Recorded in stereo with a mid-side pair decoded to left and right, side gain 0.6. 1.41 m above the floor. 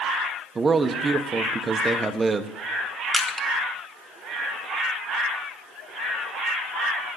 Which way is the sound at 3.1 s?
5° left.